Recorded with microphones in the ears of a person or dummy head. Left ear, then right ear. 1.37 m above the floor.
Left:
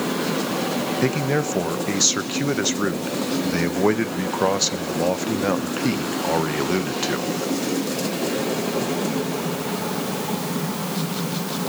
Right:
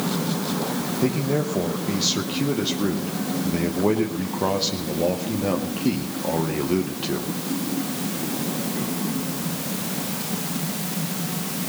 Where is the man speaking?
65° left (ahead or behind), 0.8 m.